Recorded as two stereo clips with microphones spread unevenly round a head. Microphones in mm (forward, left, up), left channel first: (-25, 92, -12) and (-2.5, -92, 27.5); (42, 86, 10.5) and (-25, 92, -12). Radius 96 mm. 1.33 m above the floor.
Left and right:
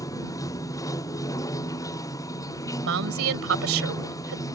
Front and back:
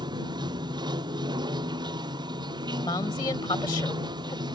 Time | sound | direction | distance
0.0 | running water | 170° left | ?
2.8 | a woman speaking | 60° right | ?